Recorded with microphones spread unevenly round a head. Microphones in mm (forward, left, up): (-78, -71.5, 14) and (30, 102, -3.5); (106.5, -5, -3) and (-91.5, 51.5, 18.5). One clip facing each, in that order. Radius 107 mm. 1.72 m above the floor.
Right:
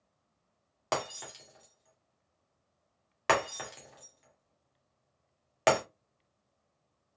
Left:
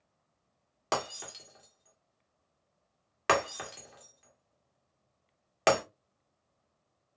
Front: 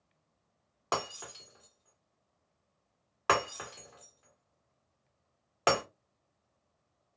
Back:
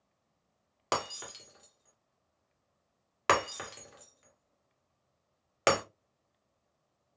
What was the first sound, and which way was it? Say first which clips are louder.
Breaking glass: even, back 1 dB; 150° left.